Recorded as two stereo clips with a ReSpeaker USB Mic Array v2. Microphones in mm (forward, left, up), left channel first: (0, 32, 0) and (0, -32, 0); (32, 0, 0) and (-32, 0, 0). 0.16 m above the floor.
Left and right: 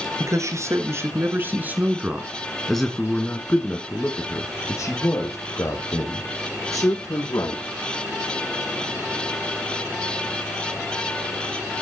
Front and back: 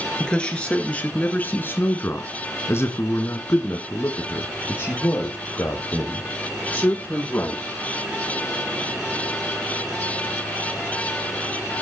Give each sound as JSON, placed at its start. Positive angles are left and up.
{"t": 0.2, "sound": "a man speaking", "azimuth_deg": -75, "distance_m": 3.0}